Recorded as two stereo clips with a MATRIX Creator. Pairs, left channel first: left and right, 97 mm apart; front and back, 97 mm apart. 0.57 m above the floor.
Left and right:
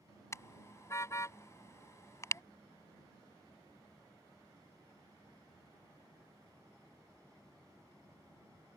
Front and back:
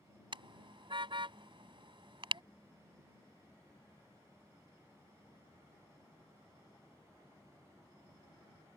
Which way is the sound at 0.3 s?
150° left.